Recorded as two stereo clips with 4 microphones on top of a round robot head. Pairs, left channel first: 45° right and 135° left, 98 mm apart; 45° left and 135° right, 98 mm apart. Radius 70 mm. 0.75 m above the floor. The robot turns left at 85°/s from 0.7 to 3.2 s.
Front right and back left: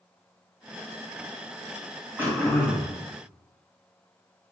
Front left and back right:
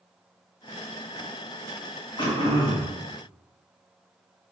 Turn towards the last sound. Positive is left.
turn(degrees=-15)